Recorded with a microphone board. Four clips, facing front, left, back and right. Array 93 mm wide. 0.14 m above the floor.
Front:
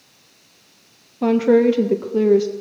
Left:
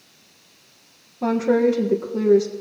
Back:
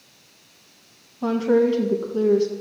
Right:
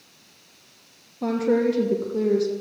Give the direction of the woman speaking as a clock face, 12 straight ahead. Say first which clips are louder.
Left 3 dB, front 4 dB; 12 o'clock.